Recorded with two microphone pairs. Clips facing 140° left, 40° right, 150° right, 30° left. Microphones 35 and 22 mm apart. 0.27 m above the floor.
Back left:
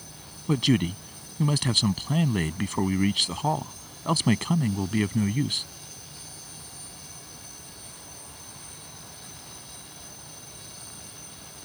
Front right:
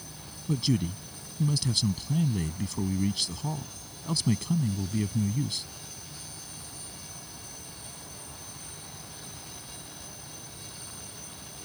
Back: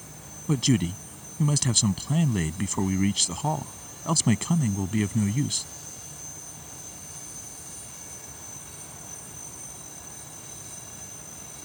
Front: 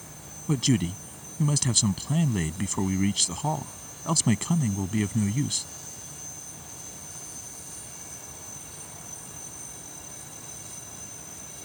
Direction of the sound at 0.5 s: 125° left.